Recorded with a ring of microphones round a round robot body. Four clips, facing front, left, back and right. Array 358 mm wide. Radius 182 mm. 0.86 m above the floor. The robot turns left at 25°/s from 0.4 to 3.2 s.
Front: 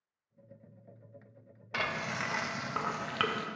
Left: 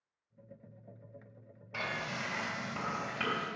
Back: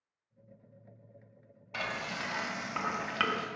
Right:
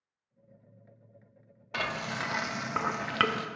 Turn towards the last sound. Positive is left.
turn(degrees=-85)